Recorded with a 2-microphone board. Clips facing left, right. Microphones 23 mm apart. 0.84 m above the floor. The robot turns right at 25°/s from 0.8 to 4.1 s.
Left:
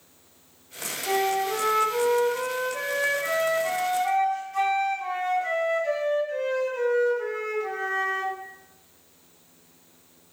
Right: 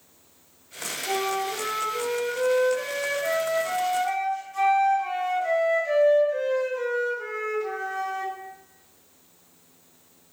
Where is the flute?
65° left, 3.5 m; by 8.3 s 140° left, 3.5 m.